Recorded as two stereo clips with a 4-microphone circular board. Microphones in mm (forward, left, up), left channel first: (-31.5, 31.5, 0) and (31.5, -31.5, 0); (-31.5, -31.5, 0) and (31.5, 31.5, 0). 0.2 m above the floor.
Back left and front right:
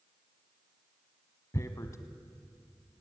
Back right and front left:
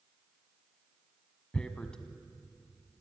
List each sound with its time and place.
1.5 s tearing paper: 150° left, 1.1 m